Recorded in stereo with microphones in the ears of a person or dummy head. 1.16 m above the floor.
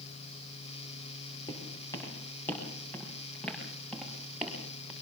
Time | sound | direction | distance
1.5 | footsteps | 25° left (ahead or behind) | 6.5 m